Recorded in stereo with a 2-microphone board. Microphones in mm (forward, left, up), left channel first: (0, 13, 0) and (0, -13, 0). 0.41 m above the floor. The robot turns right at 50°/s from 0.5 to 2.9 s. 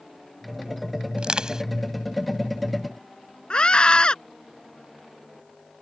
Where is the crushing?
45° right (ahead or behind); by 1.6 s 25° right (ahead or behind).